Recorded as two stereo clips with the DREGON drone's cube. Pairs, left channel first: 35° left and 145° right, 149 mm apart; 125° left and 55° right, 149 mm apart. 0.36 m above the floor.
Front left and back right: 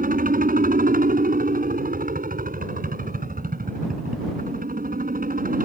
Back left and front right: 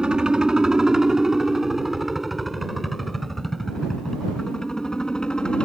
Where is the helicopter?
140° right; by 5.7 s 150° right.